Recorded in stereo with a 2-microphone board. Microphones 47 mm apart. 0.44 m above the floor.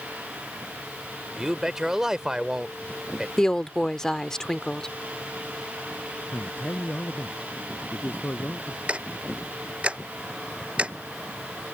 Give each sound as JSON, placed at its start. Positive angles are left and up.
{"t": 1.4, "sound": "a man speaking", "side_deg": -15}
{"t": 3.4, "sound": "a woman speaking", "side_deg": 10}
{"t": 6.3, "sound": "a man speaking", "side_deg": 45}
{"t": 8.9, "sound": "ticking", "side_deg": -25}